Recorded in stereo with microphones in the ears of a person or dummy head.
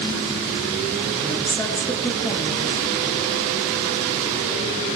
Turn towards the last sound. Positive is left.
turn(degrees=20)  # may be behind; listen again after turning